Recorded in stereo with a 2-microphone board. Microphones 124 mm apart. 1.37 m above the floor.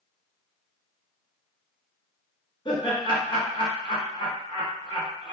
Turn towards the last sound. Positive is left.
turn(degrees=40)  # may be behind; listen again after turning